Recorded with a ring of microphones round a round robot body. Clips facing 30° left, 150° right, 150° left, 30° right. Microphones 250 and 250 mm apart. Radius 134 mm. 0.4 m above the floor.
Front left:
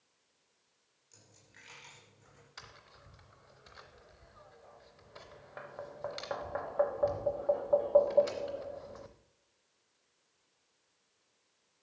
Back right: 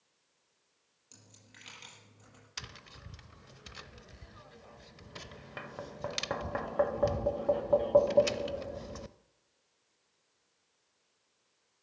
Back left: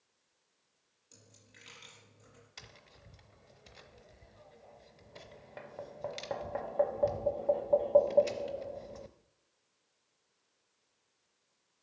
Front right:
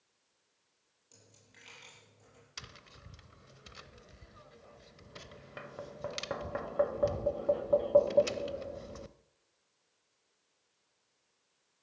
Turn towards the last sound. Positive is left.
turn(degrees=-105)